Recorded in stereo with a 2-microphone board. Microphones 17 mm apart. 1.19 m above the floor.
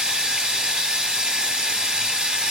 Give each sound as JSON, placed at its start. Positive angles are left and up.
{"t": 0.0, "sound": "running water", "side_deg": -60, "distance_m": 1.8}